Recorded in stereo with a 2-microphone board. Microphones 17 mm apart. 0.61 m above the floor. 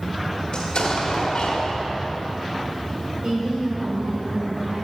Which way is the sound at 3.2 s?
65° right (ahead or behind).